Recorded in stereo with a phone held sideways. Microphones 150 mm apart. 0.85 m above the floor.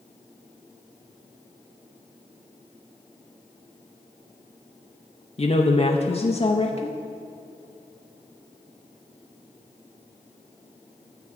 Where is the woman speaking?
40° left (ahead or behind), 0.6 m.